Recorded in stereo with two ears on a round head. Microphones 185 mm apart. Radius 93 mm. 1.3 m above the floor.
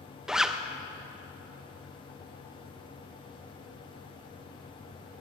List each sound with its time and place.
0.3 s a zipper: centre (ahead or behind), 0.5 m